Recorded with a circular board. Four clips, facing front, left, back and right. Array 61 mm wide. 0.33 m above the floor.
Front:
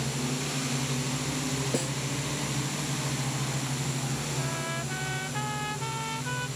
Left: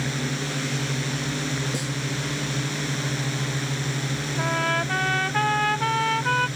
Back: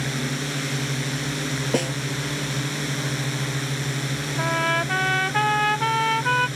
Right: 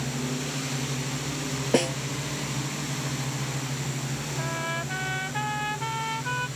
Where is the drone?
145° left.